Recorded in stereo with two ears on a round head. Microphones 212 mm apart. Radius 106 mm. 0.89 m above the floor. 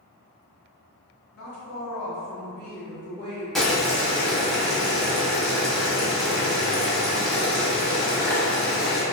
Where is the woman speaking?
45° left (ahead or behind), 1.0 m; by 3.5 s 50° right (ahead or behind), 1.1 m.